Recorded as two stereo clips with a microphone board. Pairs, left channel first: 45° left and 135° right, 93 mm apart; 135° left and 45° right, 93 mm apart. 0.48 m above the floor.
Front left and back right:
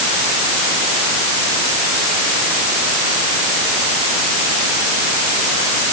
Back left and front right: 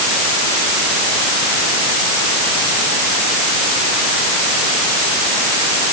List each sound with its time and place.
Only background noise.